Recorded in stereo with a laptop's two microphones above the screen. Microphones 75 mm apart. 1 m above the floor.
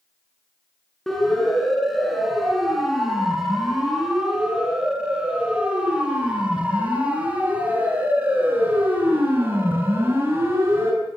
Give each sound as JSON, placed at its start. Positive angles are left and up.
{"t": 1.1, "sound": "a siren", "side_deg": 0, "distance_m": 8.5}